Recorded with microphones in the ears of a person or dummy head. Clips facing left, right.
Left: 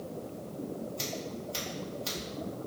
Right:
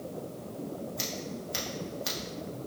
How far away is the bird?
I don't hear a bird.